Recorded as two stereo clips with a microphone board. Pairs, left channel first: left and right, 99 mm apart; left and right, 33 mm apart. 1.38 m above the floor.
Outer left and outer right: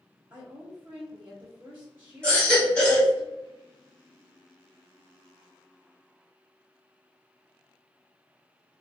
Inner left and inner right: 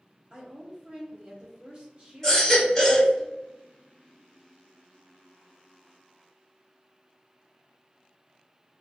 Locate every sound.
0.3 s a woman speaking: 20° right (ahead or behind), 1.0 m
2.2 s a baby crying: 15° left (ahead or behind), 1.7 m